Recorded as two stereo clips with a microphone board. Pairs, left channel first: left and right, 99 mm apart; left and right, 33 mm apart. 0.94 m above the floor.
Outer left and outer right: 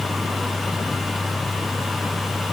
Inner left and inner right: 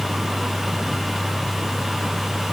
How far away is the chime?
I don't hear a chime.